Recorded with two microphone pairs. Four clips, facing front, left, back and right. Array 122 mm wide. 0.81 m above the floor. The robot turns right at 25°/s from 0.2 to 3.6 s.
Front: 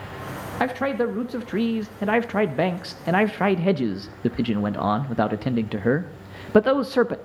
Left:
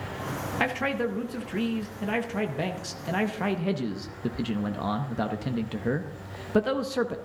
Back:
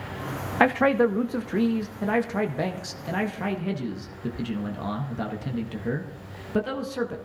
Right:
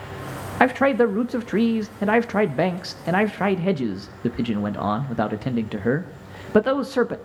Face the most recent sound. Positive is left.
turn(degrees=-35)